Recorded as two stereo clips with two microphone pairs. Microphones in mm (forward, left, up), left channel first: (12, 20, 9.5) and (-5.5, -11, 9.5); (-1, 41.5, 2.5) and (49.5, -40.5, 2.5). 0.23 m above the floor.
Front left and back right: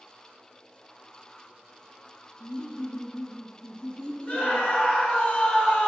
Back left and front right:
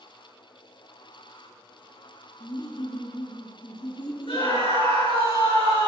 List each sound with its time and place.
2.4 s laughter: 105° left, 1.9 m
4.3 s a scream: 115° left, 4 m